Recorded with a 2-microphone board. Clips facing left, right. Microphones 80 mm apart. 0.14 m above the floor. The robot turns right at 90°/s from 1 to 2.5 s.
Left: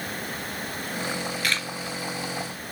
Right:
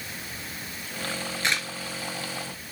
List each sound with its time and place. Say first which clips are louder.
1.4 s a camera shutter: right 2 dB; 25° right (ahead or behind), 1.7 m; by 1.7 s 10° right (ahead or behind), 1.7 m